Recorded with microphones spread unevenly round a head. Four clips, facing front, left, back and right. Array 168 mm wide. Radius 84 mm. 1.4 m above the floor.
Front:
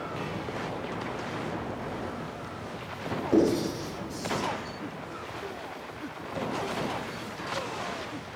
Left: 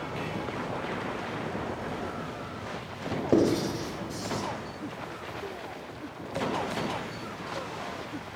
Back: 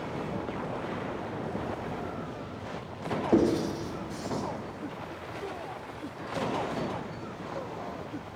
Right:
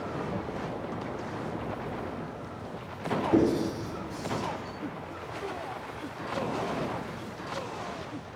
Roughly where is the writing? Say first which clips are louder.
Left 1 dB, front 1 dB; left.